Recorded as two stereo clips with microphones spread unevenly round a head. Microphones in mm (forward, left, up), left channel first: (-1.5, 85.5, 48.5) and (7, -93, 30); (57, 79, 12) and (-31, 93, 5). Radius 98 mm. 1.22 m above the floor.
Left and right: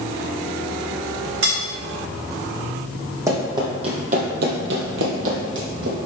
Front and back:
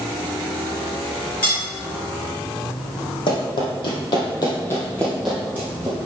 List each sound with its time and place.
1.4 s cutlery clinking: 70° right, 2 m
3.3 s running footsteps: 10° right, 3 m; by 6.0 s 120° right, 3 m